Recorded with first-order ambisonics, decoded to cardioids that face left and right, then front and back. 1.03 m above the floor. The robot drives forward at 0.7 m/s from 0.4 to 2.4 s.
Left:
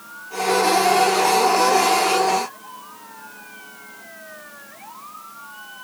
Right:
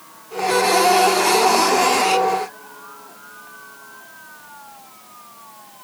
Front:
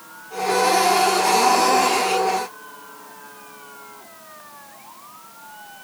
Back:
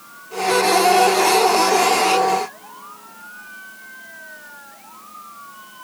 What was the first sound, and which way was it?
Only background noise.